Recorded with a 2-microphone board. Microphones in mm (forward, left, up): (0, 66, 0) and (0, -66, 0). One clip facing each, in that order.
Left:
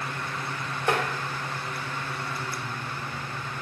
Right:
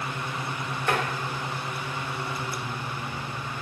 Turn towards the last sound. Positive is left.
turn(degrees=25)  # may be behind; listen again after turning